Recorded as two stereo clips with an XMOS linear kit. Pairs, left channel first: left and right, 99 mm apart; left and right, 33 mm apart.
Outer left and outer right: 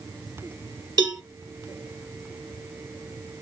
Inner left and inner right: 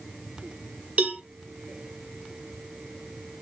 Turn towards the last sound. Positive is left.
turn(degrees=-45)  # may be behind; listen again after turning